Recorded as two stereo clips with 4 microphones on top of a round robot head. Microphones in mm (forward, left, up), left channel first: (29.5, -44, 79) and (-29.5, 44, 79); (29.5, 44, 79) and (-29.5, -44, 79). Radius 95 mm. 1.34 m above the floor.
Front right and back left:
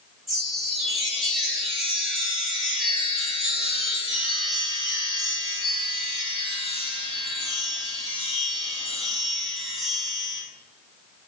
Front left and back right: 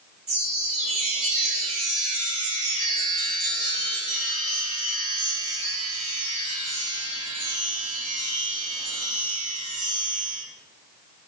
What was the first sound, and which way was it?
A chime, 150° right.